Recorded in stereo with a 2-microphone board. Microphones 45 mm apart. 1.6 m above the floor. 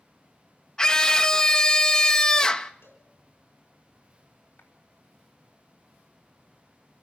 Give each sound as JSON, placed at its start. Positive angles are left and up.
{"t": 0.8, "sound": "a scream", "side_deg": 15, "distance_m": 1.0}
{"t": 2.8, "sound": "a cowbell", "side_deg": 75, "distance_m": 4.5}
{"t": 4.6, "sound": "a clap", "side_deg": 50, "distance_m": 3.5}